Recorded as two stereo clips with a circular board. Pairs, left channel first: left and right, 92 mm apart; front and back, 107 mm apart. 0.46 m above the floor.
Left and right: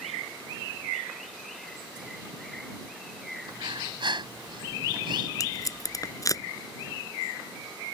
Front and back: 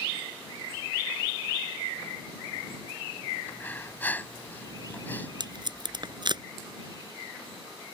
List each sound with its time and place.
3.5 s breathing: 70° right
5.4 s tape being pulled: 140° left